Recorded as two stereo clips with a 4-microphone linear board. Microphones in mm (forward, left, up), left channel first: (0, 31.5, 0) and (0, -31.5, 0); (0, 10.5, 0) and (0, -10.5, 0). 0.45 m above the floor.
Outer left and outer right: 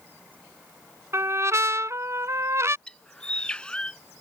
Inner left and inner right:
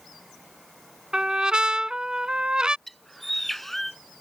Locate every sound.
1.1 s a trumpet: 50° right (ahead or behind)
2.9 s a bird: 15° left (ahead or behind)